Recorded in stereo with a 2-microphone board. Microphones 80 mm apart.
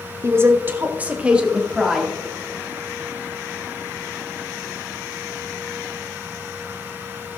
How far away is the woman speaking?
About 1.2 m.